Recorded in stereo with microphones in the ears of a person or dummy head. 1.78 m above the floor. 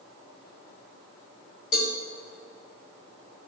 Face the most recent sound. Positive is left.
turn(degrees=45)  # may be behind; listen again after turning